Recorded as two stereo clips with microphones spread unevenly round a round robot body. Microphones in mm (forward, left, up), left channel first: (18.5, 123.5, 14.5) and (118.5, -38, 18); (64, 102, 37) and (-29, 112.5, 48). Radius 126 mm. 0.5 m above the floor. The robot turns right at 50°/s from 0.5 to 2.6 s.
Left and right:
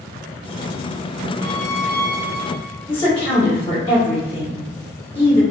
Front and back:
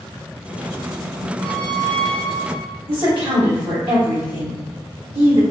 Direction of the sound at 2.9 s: 175° right.